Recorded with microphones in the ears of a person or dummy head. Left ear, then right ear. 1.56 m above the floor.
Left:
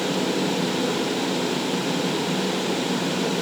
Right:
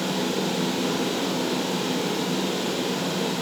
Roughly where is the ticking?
I don't hear ticking.